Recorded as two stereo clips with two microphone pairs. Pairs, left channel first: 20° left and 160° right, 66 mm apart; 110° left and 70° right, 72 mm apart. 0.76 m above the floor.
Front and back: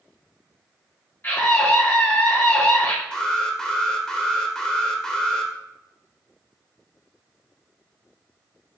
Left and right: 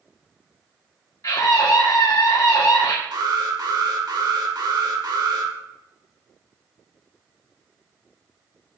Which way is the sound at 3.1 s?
60° right.